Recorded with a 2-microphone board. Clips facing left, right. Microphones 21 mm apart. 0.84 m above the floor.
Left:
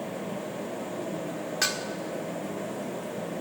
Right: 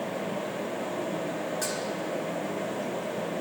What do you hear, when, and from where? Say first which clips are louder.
1.6 s dishes clattering: left 3 dB; 50° left (ahead or behind), 1.6 m